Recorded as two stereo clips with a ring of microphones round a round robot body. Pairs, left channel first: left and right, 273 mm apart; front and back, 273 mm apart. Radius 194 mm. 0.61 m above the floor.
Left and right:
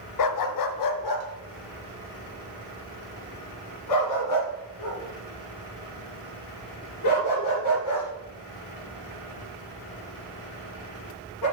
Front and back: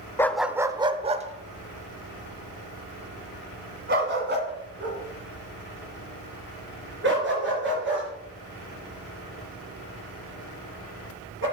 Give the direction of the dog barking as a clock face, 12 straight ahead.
9 o'clock.